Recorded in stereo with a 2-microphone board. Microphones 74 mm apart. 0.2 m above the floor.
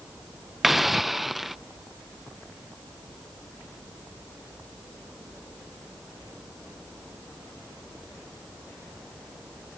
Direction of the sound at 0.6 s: Centre (ahead or behind).